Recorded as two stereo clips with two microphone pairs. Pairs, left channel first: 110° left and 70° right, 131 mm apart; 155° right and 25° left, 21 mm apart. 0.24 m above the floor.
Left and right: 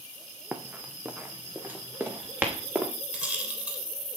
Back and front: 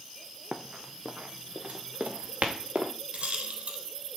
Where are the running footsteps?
10° left, 1.6 m; by 2.9 s 5° left, 3 m.